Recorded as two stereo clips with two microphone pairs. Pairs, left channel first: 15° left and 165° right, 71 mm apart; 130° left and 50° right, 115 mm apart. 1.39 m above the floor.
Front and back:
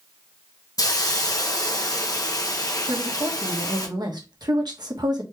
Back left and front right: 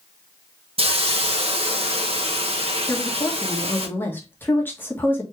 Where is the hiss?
15° right, 1.2 m.